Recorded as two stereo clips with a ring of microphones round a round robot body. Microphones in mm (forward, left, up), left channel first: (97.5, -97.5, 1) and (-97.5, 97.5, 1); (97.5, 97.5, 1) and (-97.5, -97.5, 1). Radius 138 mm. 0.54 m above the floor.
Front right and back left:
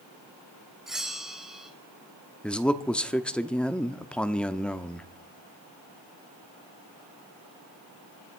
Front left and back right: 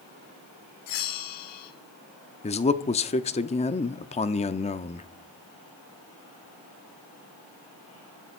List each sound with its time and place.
0.9 s a bell: 45° left, 1.9 m
2.4 s a man speaking: 35° left, 0.7 m